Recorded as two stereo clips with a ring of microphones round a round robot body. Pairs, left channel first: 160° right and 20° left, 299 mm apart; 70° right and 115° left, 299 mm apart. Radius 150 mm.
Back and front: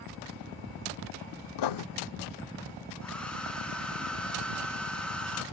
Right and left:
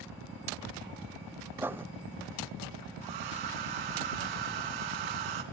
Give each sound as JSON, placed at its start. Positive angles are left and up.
{"t": 1.6, "sound": "writing", "azimuth_deg": -165, "distance_m": 0.6}
{"t": 3.0, "sound": "a hair dryer", "azimuth_deg": 115, "distance_m": 3.5}